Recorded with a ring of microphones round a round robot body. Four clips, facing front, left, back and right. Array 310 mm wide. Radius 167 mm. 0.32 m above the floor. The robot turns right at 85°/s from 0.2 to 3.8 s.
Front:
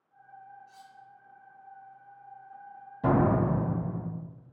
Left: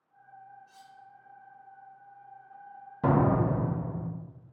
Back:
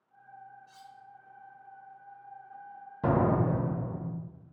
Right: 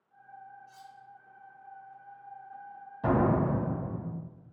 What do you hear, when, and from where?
0.7 s cutlery clinking: 175° right, 0.6 m; by 0.9 s 155° right, 0.6 m
3.0 s a door slam: 120° left, 1.2 m; by 4.0 s 175° right, 1.2 m